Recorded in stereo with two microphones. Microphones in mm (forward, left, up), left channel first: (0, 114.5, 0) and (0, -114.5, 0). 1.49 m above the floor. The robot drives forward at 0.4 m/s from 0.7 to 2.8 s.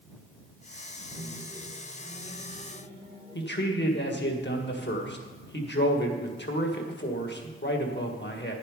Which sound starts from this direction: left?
A man speaking, at 3.4 s.